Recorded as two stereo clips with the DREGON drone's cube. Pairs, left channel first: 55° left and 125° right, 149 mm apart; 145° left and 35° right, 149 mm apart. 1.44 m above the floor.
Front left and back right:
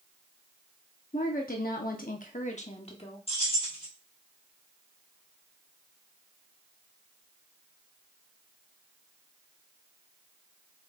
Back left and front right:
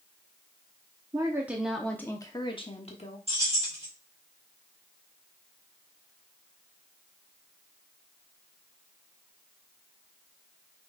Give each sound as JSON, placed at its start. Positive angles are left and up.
{"t": 1.1, "sound": "a woman speaking", "azimuth_deg": 30, "distance_m": 0.8}
{"t": 3.3, "sound": "keys jangling", "azimuth_deg": 10, "distance_m": 1.9}